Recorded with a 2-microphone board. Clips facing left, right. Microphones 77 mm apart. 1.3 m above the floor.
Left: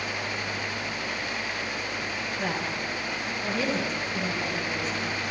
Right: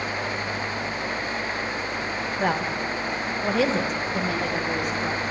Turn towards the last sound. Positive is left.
turn(degrees=-65)  # may be behind; listen again after turning